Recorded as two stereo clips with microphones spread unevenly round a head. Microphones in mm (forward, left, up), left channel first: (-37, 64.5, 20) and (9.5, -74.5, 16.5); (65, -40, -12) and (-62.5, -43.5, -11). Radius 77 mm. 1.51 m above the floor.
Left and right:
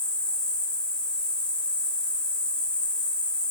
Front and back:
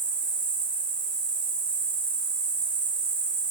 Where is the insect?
170° right, 8 m.